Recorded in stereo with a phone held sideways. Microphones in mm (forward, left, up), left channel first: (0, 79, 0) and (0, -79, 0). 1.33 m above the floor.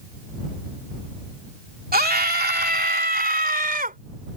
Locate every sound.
1.9 s a scream: 75° right (ahead or behind); by 4.0 s 65° right (ahead or behind)